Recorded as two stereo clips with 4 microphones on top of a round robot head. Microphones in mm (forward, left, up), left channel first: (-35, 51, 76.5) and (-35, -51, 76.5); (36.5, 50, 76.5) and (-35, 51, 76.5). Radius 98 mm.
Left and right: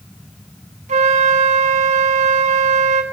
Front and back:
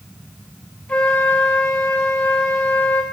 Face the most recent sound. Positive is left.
turn(degrees=-75)